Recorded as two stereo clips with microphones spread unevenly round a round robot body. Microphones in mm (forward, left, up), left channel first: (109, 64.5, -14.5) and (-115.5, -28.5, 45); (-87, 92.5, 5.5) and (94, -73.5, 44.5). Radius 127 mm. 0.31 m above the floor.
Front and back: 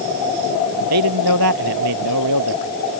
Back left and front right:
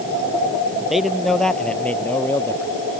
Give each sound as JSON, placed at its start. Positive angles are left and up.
{"t": 0.9, "sound": "a man speaking", "azimuth_deg": -130}